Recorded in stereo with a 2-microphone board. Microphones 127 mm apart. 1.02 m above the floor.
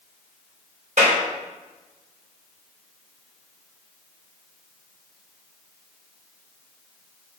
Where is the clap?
75° right (ahead or behind), 3.5 m.